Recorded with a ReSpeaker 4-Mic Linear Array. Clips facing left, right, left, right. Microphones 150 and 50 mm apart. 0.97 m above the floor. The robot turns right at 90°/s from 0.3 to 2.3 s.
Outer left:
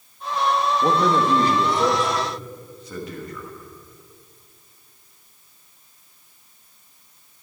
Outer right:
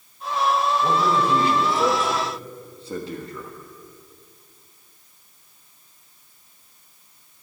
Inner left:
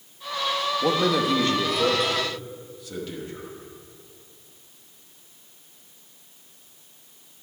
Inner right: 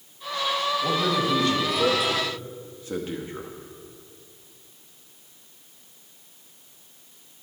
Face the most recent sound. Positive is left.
turn(degrees=-150)